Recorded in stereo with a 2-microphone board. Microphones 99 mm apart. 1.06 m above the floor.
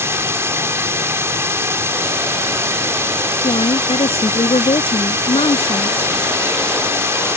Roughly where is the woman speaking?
Left.